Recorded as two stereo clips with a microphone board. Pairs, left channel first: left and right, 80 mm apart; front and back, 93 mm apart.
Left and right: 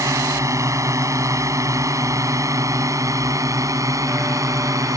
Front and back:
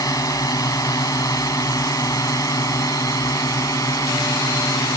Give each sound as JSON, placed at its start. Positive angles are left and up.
{"t": 0.0, "sound": "a drone", "azimuth_deg": -45}